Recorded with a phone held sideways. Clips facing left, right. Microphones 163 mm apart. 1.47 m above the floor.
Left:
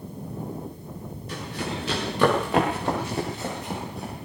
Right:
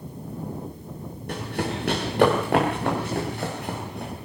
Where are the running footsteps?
60° right (ahead or behind), 6.5 m; by 4.1 s 65° right (ahead or behind), 8 m.